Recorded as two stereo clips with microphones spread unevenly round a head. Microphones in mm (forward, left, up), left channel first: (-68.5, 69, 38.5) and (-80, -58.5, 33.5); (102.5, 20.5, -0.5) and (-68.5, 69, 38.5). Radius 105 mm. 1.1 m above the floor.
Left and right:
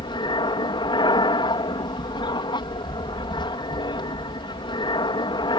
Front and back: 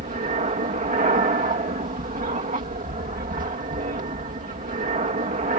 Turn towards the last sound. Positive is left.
turn(degrees=125)